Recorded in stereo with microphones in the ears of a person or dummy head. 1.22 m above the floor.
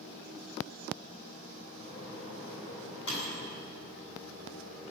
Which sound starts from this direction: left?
A microwave, at 1.8 s.